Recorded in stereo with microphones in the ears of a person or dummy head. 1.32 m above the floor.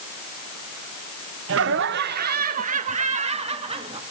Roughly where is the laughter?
Right.